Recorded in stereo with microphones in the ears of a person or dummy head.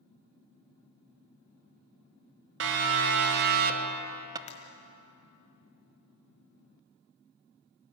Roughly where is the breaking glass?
Left.